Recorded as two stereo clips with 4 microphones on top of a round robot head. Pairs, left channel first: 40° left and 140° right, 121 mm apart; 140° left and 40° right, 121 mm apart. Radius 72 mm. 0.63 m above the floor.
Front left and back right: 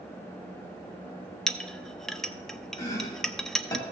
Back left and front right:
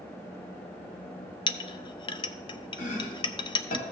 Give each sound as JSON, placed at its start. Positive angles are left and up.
{"t": 1.5, "sound": "a clink", "azimuth_deg": 125, "distance_m": 0.5}
{"t": 2.8, "sound": "chopping", "azimuth_deg": 110, "distance_m": 1.6}